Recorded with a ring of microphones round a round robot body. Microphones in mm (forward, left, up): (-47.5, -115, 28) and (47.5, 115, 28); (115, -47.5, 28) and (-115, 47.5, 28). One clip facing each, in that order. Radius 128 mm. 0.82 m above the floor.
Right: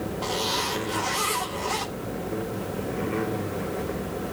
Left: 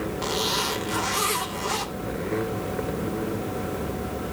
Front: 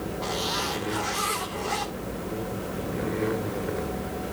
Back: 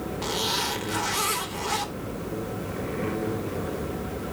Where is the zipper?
125° left, 3.5 m.